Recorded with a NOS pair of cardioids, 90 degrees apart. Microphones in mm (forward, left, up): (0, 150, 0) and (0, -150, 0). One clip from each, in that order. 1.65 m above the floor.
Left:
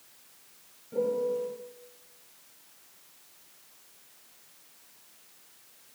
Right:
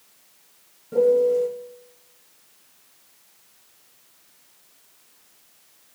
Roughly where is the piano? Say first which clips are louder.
Right 11 dB; ahead right.